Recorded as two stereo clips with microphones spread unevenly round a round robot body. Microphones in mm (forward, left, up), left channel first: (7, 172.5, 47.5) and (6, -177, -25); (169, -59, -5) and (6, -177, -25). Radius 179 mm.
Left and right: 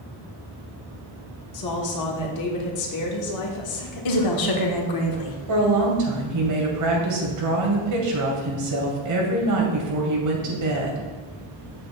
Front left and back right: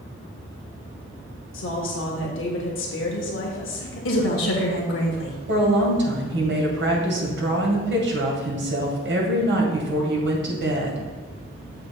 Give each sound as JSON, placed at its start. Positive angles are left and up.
{"t": 1.5, "sound": "a woman speaking", "azimuth_deg": 50, "distance_m": 1.4}
{"t": 4.0, "sound": "a woman speaking", "azimuth_deg": 60, "distance_m": 1.3}
{"t": 5.5, "sound": "a woman speaking", "azimuth_deg": -125, "distance_m": 2.5}